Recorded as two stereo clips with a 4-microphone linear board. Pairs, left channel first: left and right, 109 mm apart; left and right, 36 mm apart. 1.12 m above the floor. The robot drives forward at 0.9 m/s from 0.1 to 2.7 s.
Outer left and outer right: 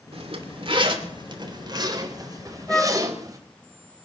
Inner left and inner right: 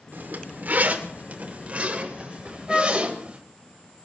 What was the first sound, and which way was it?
A zipper, 65° right (ahead or behind).